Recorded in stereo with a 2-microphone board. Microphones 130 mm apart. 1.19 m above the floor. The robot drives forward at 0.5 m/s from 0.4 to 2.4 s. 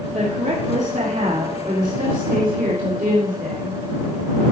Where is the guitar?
No guitar in this recording.